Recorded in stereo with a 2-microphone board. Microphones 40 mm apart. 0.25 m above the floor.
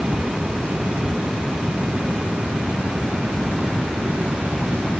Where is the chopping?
I don't hear chopping.